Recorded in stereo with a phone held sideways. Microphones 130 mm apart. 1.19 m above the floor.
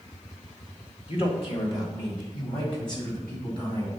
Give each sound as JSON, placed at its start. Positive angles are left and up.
{"t": 1.1, "sound": "a man speaking", "side_deg": 45, "distance_m": 2.0}